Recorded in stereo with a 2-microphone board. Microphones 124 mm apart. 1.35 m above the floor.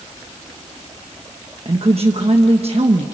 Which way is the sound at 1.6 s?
55° right (ahead or behind).